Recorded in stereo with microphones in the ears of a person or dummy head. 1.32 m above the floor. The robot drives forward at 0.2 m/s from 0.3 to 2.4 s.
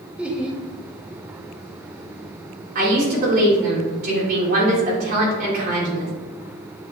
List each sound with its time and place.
0.2 s laughter: 5° right (ahead or behind), 0.5 m
2.8 s a woman speaking: 45° right (ahead or behind), 1.6 m